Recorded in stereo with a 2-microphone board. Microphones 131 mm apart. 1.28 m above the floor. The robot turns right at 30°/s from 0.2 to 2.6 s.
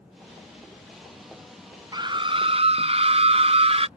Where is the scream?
30° right (ahead or behind); by 3.9 s 45° right (ahead or behind).